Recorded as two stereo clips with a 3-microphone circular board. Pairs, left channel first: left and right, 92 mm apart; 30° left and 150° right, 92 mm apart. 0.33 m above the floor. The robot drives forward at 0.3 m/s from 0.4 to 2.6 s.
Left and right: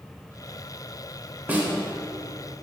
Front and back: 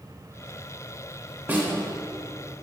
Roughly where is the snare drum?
Behind right.